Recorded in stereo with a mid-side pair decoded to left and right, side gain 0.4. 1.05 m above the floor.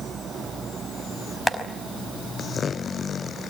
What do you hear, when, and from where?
1.5 s tapping: 5° left, 5 m